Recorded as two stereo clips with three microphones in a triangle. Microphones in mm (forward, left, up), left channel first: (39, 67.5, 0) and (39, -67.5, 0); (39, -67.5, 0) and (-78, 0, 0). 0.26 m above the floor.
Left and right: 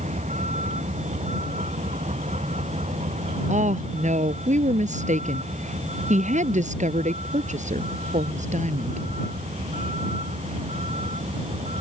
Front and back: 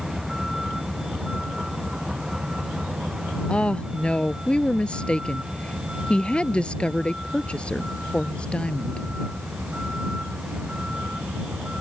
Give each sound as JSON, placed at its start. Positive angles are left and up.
{"t": 0.0, "sound": "a vehicle", "azimuth_deg": -120}
{"t": 3.5, "sound": "a woman speaking", "azimuth_deg": -110}